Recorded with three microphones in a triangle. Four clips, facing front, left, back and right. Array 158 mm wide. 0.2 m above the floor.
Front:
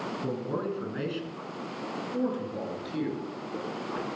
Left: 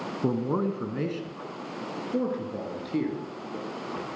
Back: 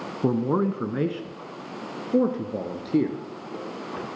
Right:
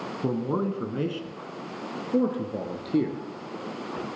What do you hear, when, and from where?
0.2 s a man speaking: 175° left, 1.4 m; by 4.0 s 150° right, 3 m